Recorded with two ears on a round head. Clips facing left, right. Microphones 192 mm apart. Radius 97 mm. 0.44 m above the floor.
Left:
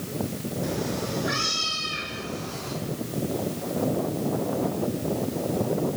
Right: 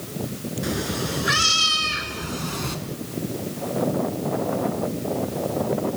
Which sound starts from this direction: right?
A cat meowing, at 0.6 s.